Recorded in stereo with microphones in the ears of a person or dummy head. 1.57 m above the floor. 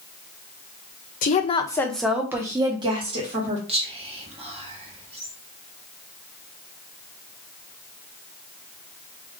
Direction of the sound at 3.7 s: 35° right (ahead or behind).